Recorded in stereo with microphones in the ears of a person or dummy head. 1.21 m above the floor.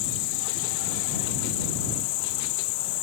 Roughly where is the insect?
Left.